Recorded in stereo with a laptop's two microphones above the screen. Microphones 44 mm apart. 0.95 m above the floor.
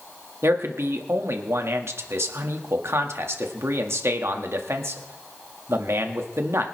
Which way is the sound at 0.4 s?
70° right (ahead or behind).